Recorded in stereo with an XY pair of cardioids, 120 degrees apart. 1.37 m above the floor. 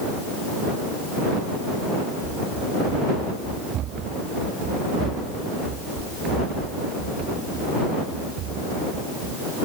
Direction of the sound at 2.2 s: 65° right.